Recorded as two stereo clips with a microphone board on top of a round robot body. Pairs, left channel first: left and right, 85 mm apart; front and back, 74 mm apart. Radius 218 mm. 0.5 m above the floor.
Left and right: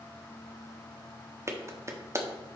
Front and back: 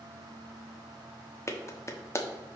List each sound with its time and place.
1.5 s a clap: 45° right, 1.4 m